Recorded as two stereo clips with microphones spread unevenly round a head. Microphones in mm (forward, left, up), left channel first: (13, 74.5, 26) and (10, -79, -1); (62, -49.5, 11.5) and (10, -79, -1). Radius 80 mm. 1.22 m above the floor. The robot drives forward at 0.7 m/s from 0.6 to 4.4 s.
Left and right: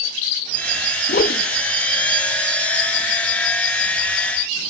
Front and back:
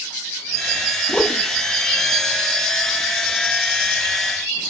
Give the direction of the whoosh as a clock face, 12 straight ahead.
9 o'clock.